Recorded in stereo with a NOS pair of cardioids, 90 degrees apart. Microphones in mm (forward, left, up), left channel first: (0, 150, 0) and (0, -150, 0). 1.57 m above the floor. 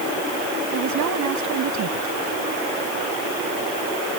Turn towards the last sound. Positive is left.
turn(degrees=-70)